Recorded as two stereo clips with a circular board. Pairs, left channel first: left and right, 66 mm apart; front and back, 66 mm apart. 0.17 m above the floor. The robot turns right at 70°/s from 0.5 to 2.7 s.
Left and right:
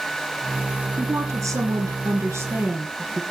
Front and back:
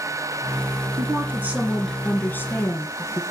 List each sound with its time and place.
1.0 s a woman speaking: 150° right, 3 m; by 3.2 s 30° right, 3 m